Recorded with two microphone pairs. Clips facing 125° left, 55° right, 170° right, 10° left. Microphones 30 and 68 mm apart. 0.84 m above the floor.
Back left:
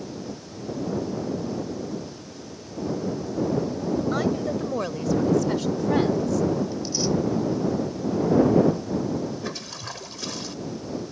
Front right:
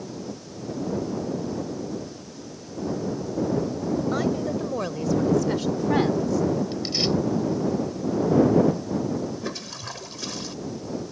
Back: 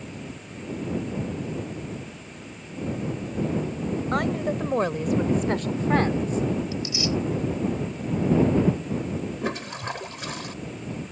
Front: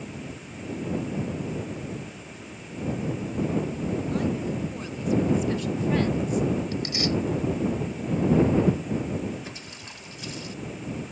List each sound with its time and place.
4.1 s a woman speaking: 155° right; by 6.4 s 125° right
6.7 s tearing paper: 25° right
9.4 s a toilet flushing: 145° right